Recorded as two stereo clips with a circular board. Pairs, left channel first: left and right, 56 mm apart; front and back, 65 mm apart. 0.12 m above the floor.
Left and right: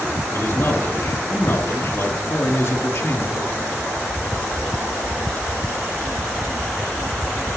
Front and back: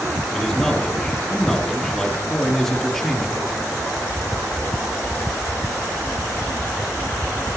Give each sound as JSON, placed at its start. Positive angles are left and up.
{"t": 0.3, "sound": "a man speaking", "azimuth_deg": 80, "distance_m": 2.5}